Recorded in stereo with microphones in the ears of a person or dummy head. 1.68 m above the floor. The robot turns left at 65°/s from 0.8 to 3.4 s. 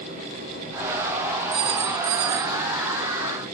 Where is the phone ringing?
40° right, 1.2 m; by 2.6 s 105° right, 1.2 m.